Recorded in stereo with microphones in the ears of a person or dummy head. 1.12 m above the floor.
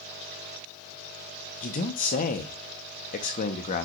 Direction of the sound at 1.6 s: 40° left (ahead or behind).